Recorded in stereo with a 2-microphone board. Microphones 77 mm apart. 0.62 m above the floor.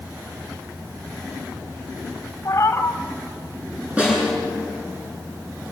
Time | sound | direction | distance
2.5 | a cat meowing | 40° left (ahead or behind) | 1.8 m
4.0 | a snare drum | 15° right (ahead or behind) | 10 m